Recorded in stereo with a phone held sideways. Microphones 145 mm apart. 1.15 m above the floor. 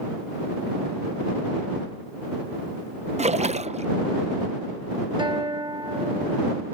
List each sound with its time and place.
3.2 s a splash: 50° right (ahead or behind)
5.2 s a guitar: 35° right (ahead or behind)